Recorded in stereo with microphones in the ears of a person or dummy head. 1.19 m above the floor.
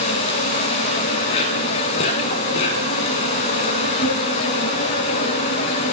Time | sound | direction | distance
0.0 | an insect | 40° left (ahead or behind) | 1.3 m